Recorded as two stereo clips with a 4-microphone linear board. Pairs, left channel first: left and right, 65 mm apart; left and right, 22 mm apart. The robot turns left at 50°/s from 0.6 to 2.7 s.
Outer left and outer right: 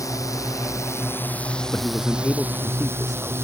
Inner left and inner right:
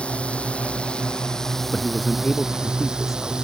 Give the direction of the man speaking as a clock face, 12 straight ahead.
11 o'clock.